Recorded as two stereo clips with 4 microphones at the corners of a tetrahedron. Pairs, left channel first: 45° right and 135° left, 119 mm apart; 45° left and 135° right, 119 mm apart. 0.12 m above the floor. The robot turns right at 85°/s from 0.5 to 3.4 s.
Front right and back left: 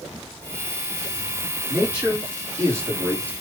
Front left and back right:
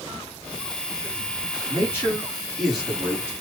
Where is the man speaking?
55° left, 1.8 m; by 3.3 s 170° right, 1.8 m.